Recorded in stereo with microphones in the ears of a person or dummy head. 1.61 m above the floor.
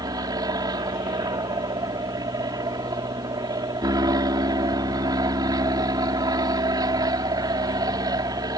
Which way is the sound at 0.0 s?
20° right (ahead or behind).